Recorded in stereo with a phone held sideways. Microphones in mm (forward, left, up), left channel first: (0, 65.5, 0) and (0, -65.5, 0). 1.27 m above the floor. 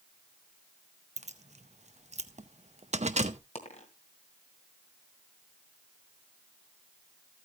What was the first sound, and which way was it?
Keys jangling, 60° right (ahead or behind).